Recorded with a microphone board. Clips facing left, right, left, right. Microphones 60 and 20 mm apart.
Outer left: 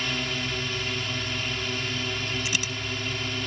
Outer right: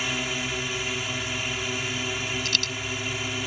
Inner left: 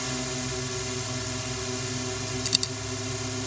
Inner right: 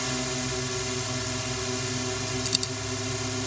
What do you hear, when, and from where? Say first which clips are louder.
0.0 s a drone: outer right 1 dB, inner right 2 dB; 10° right (ahead or behind)
2.5 s a dropped coin: even, inner left 3 dB; 15° left (ahead or behind)